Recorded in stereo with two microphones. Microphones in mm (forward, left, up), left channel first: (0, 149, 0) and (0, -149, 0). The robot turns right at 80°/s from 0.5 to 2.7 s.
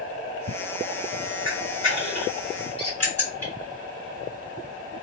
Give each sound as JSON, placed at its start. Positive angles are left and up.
{"t": 1.4, "sound": "a camera shutter", "side_deg": 40, "distance_m": 2.0}
{"t": 2.8, "sound": "a squeak", "side_deg": -55, "distance_m": 0.6}